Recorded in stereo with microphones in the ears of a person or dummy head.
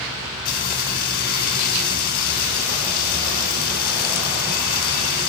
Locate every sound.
0.5 s frying: 50° left (ahead or behind), 2.5 m